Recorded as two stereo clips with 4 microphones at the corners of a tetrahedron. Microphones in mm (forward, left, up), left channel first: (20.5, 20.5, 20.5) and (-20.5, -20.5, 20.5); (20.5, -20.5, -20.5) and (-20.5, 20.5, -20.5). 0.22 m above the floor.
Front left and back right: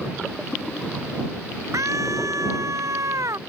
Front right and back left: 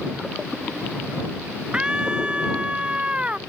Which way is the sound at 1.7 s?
155° right.